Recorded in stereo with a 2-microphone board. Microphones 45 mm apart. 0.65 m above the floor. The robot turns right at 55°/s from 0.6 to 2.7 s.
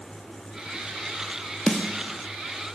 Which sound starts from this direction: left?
A snare drum, at 1.7 s.